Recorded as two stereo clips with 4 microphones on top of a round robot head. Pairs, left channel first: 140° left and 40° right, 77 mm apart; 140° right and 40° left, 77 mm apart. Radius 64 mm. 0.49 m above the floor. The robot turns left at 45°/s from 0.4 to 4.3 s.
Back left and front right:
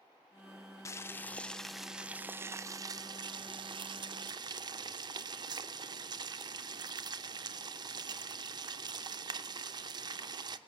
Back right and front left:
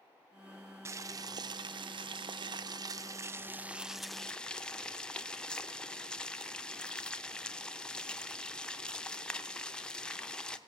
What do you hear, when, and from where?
0.8 s boiling: 90° left, 0.5 m; by 10.6 s 65° right, 0.5 m